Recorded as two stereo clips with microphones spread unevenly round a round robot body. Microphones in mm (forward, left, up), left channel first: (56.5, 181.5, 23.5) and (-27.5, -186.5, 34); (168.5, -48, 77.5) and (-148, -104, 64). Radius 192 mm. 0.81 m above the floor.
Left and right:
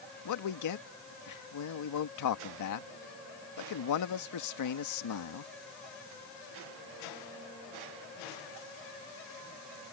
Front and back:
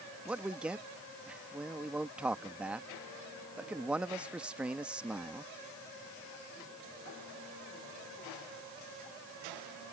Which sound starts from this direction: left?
A man speaking, at 0.2 s.